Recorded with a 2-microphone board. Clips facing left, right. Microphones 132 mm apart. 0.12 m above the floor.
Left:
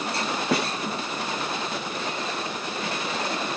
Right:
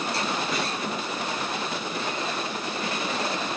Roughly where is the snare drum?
Left.